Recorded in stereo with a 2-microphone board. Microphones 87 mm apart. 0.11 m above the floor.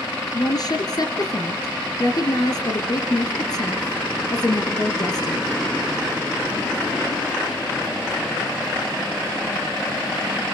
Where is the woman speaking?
50° left (ahead or behind), 2.5 m.